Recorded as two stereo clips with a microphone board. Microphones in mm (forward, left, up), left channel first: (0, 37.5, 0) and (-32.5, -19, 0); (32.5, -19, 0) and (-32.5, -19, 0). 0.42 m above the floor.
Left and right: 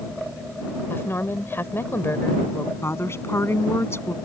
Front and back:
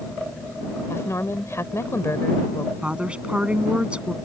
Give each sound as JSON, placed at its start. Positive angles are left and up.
{"t": 0.9, "sound": "a woman speaking", "azimuth_deg": 20}
{"t": 2.8, "sound": "a woman speaking", "azimuth_deg": 110}